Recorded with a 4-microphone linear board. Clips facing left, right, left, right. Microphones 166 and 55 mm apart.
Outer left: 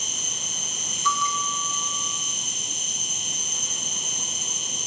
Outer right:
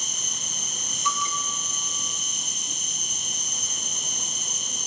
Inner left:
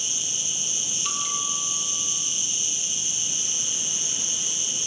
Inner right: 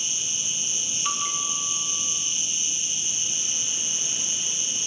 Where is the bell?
20° right (ahead or behind), 1.0 m.